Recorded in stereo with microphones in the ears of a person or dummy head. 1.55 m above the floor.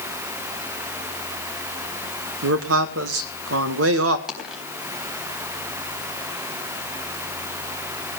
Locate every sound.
2.4 s a man speaking: 90° right, 1.6 m
4.3 s a dropped coin: 5° right (ahead or behind), 4 m